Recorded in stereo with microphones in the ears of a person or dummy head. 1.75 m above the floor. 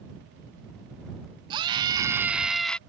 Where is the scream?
30° right (ahead or behind); by 2.8 s 5° left (ahead or behind).